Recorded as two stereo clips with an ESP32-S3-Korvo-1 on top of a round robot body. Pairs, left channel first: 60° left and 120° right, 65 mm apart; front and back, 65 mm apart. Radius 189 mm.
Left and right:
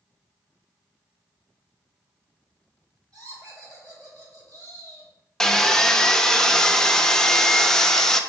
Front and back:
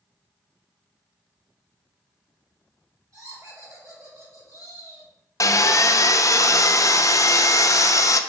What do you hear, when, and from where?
3.1 s laughter: 145° right, 4 m
5.4 s sawing: 20° right, 0.7 m